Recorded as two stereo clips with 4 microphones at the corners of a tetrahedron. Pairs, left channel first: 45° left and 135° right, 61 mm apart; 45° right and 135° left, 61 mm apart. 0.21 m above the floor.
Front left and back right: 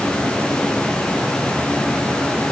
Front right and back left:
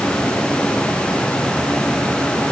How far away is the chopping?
No chopping in this recording.